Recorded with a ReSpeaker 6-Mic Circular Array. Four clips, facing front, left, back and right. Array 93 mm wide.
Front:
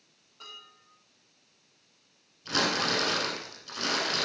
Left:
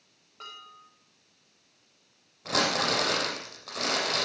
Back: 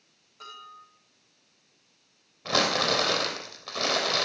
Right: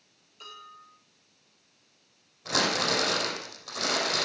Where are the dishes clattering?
100° left, 7.5 m.